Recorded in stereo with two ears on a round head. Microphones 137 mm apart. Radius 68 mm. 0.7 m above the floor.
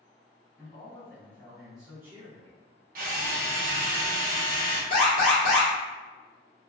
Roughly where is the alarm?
Left.